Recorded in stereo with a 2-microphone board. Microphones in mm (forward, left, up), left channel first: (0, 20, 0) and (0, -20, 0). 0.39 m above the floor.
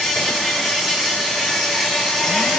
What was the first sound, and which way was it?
An insect, centre (ahead or behind).